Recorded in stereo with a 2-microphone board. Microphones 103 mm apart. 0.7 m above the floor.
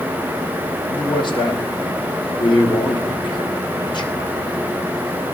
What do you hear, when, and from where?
0.9 s a man speaking: 50° left (ahead or behind), 1.2 m